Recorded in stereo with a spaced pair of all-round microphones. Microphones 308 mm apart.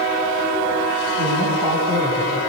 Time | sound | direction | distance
1.2 | a man speaking | 80° left | 7.5 m